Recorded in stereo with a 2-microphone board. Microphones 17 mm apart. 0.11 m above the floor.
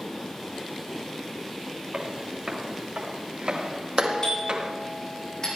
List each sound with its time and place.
1.9 s footsteps: 60° right (ahead or behind), 4.5 m; by 4.7 s 65° right (ahead or behind), 2.5 m
4.0 s a doorbell: 45° left (ahead or behind), 6 m